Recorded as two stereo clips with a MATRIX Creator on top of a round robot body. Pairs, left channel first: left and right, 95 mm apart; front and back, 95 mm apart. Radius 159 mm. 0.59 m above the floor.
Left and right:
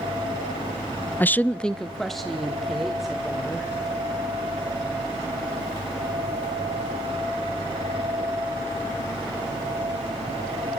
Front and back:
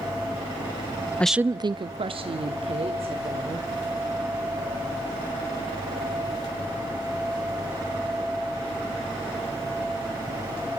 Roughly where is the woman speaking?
Ahead left.